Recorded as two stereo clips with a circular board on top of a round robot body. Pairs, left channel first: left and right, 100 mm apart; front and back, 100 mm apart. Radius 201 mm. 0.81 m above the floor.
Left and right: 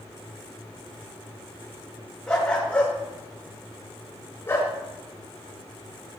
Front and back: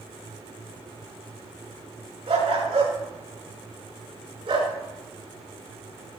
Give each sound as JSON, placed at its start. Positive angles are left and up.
{"t": 2.3, "sound": "a dog barking", "azimuth_deg": 175, "distance_m": 4.5}